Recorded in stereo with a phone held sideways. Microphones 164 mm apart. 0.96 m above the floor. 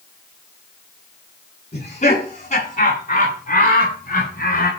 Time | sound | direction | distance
1.7 | laughter | 45° left (ahead or behind) | 8.5 m